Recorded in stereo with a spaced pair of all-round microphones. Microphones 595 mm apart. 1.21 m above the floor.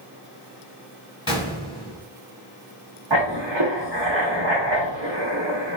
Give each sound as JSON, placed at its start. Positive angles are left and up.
{"t": 1.3, "sound": "a gunshot", "side_deg": 20, "distance_m": 1.6}
{"t": 3.1, "sound": "writing", "side_deg": -50, "distance_m": 0.9}